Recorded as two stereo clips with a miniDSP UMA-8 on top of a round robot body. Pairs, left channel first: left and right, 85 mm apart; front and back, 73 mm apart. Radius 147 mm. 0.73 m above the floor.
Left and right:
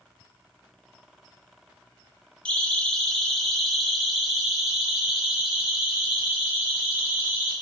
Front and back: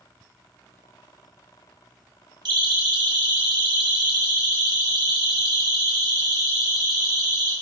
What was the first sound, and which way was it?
A siren, 170° left.